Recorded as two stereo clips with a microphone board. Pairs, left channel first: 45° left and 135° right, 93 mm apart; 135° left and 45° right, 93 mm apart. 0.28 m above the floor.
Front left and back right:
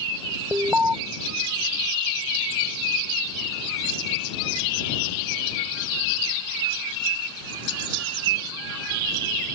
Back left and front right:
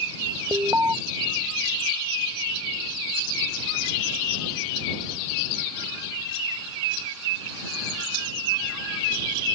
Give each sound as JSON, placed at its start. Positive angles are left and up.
{"t": 0.5, "sound": "an alarm", "azimuth_deg": -85}